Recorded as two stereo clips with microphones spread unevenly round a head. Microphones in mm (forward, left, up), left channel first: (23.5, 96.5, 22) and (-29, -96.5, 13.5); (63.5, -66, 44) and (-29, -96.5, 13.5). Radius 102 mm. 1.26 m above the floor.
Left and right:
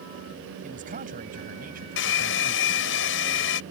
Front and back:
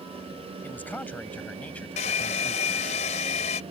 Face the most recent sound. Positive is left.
turn(degrees=45)